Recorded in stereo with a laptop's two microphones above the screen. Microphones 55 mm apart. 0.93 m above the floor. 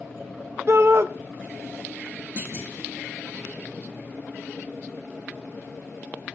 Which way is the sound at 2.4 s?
40° right (ahead or behind).